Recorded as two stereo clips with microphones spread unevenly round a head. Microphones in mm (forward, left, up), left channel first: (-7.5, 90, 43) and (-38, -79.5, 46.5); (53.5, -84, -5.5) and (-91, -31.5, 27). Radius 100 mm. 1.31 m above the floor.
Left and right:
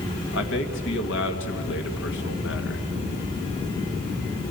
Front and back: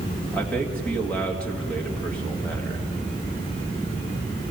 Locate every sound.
0.3 s a man speaking: 65° left, 1.8 m